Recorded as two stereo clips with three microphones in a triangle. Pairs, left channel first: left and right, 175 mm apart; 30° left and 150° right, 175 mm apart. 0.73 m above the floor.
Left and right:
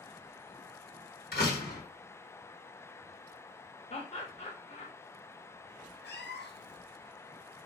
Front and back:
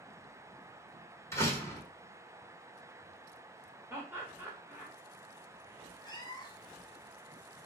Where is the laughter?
135° left, 0.7 m.